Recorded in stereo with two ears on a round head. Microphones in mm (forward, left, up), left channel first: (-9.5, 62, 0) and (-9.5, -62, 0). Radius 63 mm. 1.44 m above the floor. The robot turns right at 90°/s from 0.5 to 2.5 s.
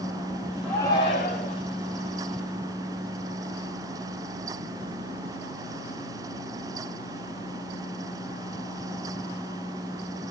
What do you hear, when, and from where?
0.6 s a shout: 5° left, 6 m; by 1.6 s 95° left, 6 m